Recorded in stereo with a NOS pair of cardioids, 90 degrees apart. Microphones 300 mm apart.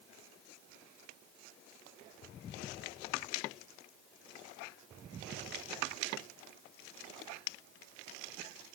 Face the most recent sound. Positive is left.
No sound to turn to.